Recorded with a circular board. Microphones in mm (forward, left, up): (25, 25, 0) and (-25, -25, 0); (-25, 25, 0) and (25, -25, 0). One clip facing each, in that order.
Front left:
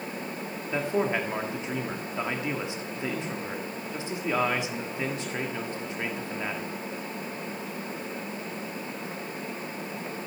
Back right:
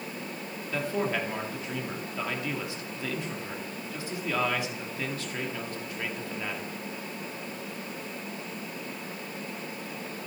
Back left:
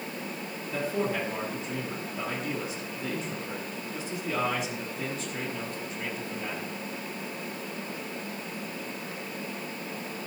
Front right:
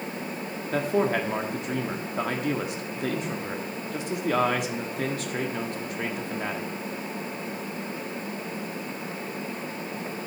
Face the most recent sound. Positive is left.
turn(degrees=-25)